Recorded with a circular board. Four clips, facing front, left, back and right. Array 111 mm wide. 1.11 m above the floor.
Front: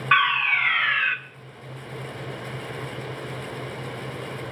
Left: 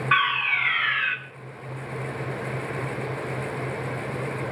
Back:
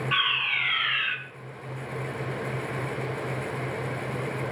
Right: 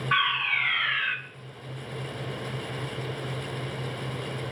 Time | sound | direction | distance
0.1 | a fire alarm | 25° left | 2 m